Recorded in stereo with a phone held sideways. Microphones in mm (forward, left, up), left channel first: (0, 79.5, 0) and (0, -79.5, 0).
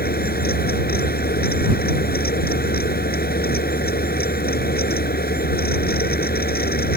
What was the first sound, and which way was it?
A fan, 90° left.